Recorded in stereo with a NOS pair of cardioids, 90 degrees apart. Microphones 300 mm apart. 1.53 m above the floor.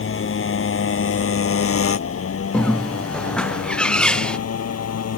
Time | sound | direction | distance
0.0 | a motorcycle | 40° left | ?
2.5 | a bird | 5° left | ?